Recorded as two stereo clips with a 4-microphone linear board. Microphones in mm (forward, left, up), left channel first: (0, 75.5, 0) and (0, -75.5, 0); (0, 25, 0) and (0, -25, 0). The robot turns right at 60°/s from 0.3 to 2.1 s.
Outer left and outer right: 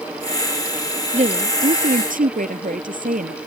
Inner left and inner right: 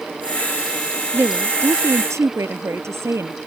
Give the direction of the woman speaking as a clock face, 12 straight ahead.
4 o'clock.